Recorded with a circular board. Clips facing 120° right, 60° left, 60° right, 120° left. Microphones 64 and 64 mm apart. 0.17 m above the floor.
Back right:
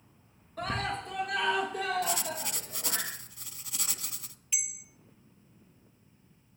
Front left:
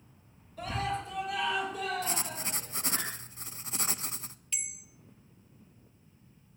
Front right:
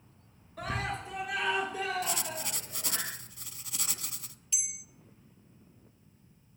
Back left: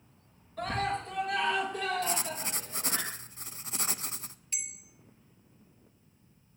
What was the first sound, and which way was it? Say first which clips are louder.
A scream: back right 1 dB, back left 3 dB; 145° right.